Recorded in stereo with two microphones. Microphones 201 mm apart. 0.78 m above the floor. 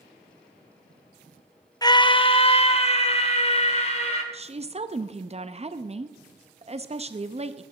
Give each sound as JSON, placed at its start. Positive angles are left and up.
{"t": 1.8, "sound": "a scream", "side_deg": 20, "distance_m": 0.6}
{"t": 4.3, "sound": "a woman speaking", "side_deg": -35, "distance_m": 0.5}